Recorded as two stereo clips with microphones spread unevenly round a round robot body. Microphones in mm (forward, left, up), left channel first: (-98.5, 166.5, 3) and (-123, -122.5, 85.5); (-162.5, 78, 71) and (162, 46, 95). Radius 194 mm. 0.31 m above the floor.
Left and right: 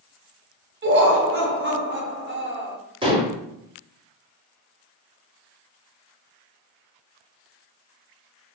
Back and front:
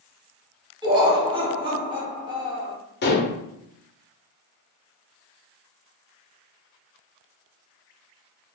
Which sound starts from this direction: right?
Laughter, at 0.8 s.